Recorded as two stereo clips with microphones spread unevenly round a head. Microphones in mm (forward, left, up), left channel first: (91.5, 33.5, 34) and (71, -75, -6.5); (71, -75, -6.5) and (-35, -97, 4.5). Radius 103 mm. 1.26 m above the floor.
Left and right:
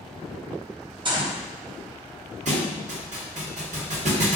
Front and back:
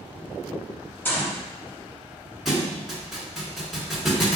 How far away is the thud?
About 2 m.